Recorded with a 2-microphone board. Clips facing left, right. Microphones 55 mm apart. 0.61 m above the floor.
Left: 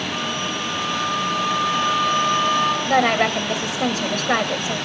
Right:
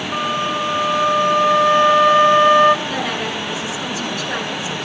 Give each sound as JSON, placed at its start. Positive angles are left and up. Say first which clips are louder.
{"t": 0.1, "sound": "a flute", "louder": "right 5 dB", "side_deg": -40, "distance_m": 1.7}
{"t": 2.9, "sound": "a woman speaking", "louder": "left 5 dB", "side_deg": 55, "distance_m": 3.0}